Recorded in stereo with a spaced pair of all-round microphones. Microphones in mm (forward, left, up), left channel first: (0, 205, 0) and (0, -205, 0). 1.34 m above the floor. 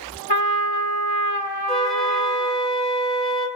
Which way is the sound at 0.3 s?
70° left (ahead or behind).